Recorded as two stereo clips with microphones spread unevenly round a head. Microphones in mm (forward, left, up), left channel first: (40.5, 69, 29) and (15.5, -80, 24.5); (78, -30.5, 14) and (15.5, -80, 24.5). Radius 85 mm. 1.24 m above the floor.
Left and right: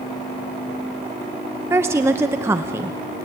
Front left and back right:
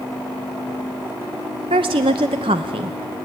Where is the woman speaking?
175° right, 0.5 m.